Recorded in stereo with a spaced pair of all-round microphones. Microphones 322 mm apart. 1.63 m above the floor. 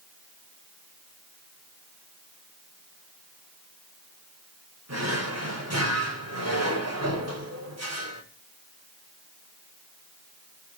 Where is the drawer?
50° right (ahead or behind), 5 m.